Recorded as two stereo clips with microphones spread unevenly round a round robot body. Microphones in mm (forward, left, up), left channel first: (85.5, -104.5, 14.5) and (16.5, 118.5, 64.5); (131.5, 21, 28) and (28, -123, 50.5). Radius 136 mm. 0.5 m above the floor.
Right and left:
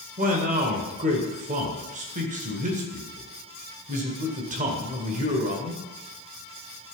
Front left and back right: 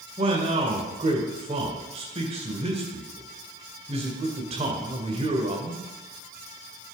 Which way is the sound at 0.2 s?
170° left.